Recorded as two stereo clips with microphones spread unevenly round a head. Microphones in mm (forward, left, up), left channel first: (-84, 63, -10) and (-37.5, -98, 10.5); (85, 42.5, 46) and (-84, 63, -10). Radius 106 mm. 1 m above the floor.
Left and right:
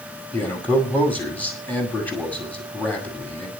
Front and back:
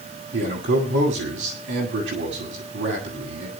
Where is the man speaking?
175° right, 7.5 m.